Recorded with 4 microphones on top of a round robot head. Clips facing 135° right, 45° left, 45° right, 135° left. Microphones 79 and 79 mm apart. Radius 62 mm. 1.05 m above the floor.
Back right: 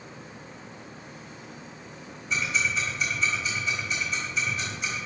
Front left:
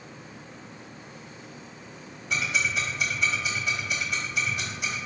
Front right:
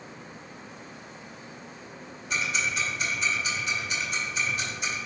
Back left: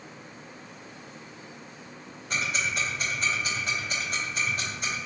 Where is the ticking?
85° left, 2.5 m.